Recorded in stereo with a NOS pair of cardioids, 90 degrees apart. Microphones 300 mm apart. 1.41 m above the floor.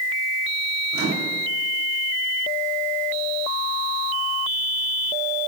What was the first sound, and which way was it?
A microwave, 50° right.